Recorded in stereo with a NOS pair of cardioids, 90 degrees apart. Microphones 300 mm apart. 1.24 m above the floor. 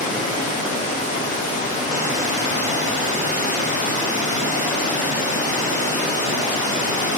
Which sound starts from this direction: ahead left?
Running water, at 0.0 s.